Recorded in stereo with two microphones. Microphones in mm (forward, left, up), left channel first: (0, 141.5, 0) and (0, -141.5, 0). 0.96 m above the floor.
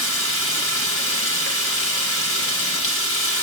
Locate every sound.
0.0 s running water: 45° left (ahead or behind), 6 m